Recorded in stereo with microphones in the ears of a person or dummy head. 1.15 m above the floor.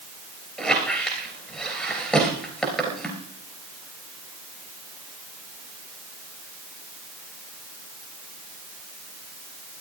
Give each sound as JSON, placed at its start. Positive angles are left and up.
{"t": 0.6, "sound": "a squeak", "side_deg": 5, "distance_m": 3.0}